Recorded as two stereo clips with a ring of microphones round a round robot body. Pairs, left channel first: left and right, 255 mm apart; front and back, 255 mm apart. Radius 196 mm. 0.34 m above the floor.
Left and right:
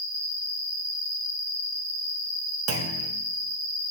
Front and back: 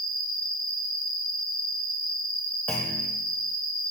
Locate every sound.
0.0 s an insect: 145° left, 1.8 m
2.7 s a clunk: 85° right, 0.6 m